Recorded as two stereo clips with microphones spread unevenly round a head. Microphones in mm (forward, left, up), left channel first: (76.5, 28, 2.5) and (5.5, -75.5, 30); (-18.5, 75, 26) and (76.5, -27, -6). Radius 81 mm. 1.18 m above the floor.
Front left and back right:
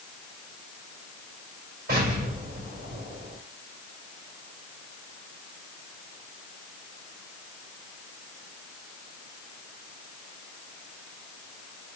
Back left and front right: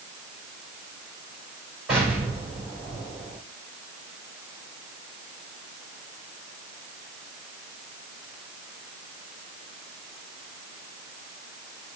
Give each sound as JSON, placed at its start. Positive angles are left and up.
{"t": 1.9, "sound": "an explosion", "azimuth_deg": -130, "distance_m": 5.0}